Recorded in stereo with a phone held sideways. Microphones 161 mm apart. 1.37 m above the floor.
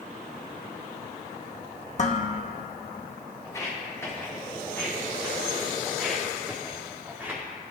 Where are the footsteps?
20° left (ahead or behind), 4.5 m; by 7.4 s 15° right (ahead or behind), 4 m.